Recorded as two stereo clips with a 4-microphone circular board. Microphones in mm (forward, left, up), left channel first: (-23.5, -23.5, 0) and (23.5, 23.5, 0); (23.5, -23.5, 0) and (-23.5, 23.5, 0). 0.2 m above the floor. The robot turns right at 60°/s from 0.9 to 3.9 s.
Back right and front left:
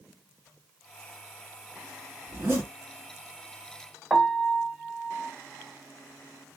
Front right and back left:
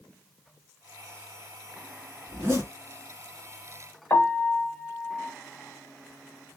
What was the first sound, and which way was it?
A zipper, 75° left.